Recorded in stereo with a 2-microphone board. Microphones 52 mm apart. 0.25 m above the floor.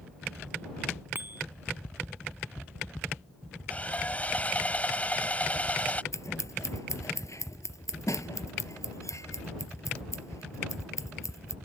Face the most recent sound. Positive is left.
turn(degrees=70)  # may be behind; listen again after turning